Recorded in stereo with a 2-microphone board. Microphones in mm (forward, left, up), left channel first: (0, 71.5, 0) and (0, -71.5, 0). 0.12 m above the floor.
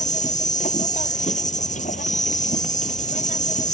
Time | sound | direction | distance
0.0 | an insect | 60° left (ahead or behind) | ?